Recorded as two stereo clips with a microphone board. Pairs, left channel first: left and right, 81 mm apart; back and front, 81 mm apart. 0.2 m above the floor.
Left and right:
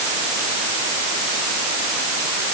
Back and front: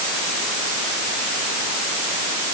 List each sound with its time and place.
Only background noise.